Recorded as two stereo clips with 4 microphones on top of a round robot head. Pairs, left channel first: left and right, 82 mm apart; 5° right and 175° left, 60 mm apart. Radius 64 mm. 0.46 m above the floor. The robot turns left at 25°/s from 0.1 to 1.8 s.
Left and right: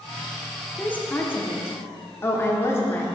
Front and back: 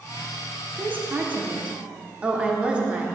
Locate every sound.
0.8 s a woman speaking: 145° left, 1.1 m; by 3.0 s 120° left, 1.1 m